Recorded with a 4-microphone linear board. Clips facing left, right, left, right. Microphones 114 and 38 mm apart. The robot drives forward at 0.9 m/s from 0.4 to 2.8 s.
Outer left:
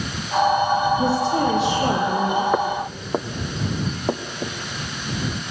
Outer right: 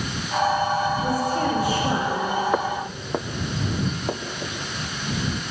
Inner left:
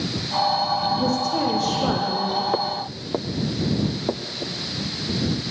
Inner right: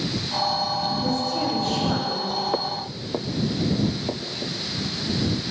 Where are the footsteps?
5° left (ahead or behind), 0.6 m; by 4.6 s 20° left (ahead or behind), 2 m.